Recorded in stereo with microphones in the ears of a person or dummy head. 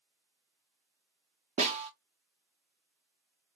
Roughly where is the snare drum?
Right.